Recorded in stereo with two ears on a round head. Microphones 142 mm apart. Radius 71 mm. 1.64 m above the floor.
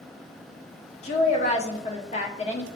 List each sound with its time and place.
1.0 s a woman speaking: 40° left (ahead or behind), 0.7 m